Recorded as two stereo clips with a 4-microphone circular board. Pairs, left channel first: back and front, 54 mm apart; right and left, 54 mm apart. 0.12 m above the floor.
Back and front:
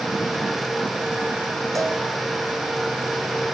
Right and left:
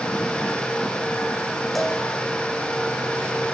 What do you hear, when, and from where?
1.8 s a cowbell: straight ahead, 7.5 m